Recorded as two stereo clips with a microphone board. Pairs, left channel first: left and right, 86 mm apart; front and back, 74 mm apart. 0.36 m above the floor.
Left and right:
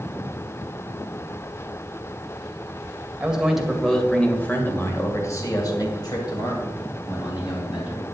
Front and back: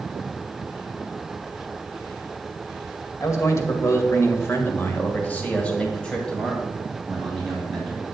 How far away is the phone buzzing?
I don't hear a phone buzzing.